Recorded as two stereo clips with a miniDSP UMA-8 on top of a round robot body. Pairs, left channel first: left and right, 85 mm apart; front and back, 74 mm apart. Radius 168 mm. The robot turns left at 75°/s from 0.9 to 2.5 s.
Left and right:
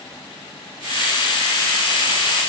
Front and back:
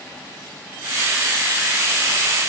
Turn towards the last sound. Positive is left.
No sound to turn to.